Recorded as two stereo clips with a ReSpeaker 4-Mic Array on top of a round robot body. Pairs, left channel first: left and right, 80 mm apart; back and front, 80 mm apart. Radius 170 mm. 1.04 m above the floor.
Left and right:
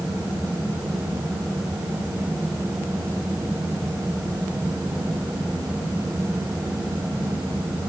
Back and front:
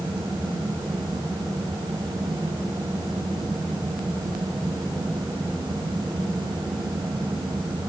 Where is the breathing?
I don't hear breathing.